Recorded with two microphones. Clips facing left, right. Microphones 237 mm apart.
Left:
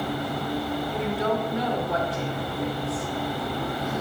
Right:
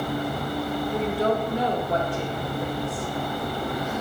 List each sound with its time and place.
0.9 s a woman speaking: 30° right (ahead or behind), 1.0 m